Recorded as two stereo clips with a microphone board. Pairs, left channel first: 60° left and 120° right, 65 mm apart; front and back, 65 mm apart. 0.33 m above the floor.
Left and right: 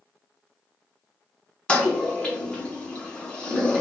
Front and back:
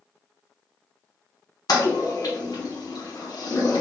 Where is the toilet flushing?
15° right, 1.0 m.